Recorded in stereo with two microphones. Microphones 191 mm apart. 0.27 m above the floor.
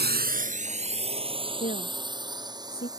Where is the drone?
60° right (ahead or behind); by 3.0 s 20° right (ahead or behind).